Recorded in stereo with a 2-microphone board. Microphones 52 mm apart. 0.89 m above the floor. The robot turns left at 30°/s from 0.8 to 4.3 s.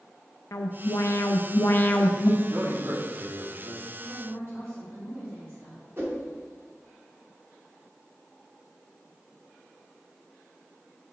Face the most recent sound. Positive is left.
turn(degrees=-45)  # may be behind; listen again after turning